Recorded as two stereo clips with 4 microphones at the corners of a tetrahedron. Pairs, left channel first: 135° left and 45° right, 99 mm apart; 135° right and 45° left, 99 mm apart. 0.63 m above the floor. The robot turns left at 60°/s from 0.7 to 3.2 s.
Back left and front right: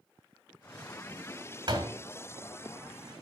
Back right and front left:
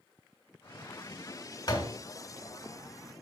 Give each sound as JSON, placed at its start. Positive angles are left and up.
{"t": 1.7, "sound": "a door slam", "azimuth_deg": -90, "distance_m": 2.5}